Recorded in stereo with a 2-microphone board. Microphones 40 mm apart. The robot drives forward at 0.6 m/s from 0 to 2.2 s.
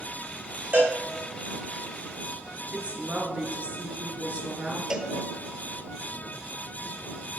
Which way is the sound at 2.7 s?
35° right (ahead or behind).